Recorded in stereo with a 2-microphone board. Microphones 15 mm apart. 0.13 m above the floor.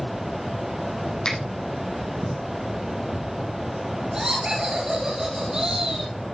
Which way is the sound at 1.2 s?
60° left (ahead or behind).